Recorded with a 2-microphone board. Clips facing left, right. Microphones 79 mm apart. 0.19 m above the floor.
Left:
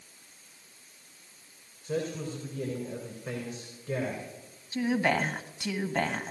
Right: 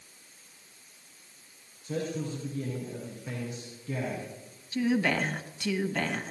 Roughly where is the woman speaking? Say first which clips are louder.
Even; left.